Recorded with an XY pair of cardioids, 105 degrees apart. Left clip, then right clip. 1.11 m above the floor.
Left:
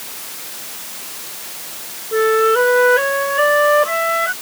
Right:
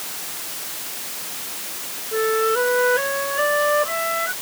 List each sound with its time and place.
2.1 s a flute: 40° left